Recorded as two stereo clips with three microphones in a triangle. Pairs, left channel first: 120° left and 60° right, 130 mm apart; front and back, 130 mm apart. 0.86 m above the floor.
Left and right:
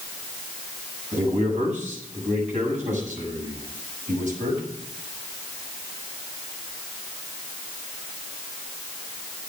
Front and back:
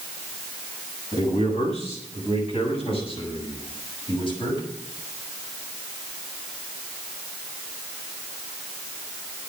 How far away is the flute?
No flute in this recording.